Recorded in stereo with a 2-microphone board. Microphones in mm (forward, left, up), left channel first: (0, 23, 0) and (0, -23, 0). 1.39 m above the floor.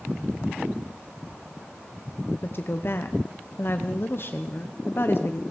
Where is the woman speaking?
50° left (ahead or behind), 0.8 m.